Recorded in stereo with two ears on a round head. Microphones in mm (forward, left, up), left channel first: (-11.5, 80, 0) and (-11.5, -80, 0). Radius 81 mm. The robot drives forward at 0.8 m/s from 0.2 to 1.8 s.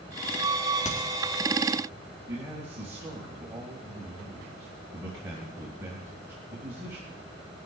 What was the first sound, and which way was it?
A crack, 40° left (ahead or behind).